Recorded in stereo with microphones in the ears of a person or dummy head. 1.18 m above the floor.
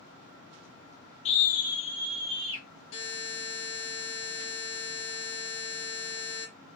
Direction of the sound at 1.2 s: 35° left (ahead or behind).